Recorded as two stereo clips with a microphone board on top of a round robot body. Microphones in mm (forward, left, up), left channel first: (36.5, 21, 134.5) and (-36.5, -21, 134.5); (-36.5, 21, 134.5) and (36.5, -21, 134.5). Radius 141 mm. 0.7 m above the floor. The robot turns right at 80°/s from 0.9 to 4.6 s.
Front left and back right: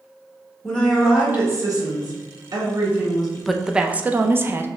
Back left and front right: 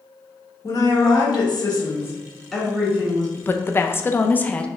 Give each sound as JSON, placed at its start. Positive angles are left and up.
{"t": 0.6, "sound": "a woman speaking", "azimuth_deg": 110, "distance_m": 2.0}
{"t": 3.4, "sound": "a woman speaking", "azimuth_deg": 110, "distance_m": 0.6}